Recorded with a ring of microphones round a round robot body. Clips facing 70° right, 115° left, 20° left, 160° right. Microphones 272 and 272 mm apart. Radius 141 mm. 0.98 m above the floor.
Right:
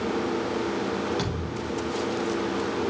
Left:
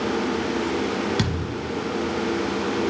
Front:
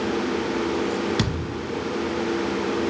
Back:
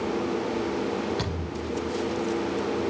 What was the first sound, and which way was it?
A thud, 65° left.